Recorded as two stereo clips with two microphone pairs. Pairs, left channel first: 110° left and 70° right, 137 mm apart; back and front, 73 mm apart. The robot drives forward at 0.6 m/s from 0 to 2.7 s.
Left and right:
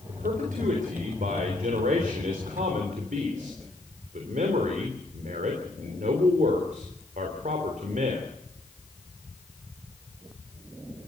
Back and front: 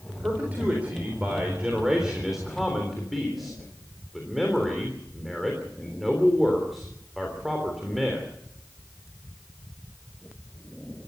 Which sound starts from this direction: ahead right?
A man speaking, at 0.1 s.